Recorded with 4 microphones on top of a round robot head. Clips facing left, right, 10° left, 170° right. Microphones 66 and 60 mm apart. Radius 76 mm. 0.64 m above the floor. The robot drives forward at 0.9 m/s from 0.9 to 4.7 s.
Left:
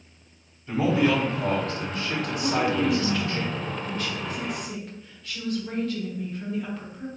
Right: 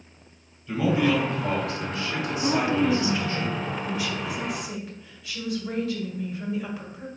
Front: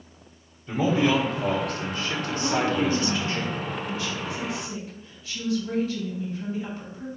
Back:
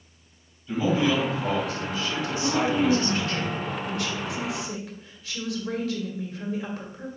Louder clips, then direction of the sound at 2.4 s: Right 1 dB, back 1 dB; 60° right.